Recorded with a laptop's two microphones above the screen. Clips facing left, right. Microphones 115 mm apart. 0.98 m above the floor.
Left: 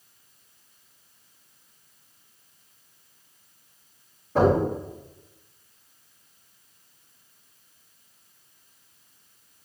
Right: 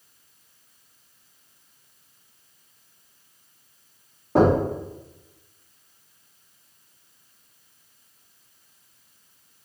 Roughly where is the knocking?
Right.